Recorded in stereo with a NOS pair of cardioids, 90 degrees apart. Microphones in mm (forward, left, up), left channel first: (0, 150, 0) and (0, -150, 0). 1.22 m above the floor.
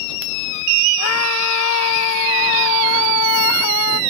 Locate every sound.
1.0 s a scream: 60° left; by 4.0 s 75° left